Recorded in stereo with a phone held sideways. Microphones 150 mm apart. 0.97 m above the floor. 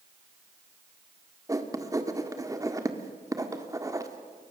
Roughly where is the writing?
Right.